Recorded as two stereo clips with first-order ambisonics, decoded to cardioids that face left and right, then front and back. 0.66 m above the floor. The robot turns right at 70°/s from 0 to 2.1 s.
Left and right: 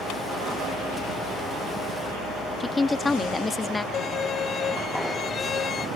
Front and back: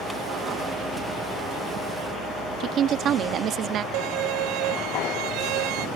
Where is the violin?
155° left.